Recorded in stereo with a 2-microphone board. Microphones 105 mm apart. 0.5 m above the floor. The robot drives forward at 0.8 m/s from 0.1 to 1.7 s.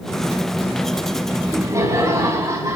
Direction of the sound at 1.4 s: 30° right (ahead or behind).